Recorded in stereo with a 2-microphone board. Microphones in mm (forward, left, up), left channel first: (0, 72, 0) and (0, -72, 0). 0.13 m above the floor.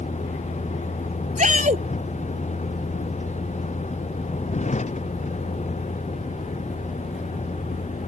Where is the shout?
55° right (ahead or behind).